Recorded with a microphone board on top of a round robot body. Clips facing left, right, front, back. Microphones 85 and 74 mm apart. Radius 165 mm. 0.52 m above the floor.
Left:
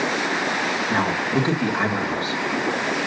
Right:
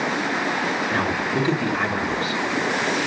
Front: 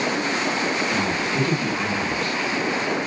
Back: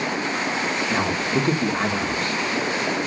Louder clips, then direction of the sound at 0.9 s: Left 1 dB, back 1 dB; 145° left.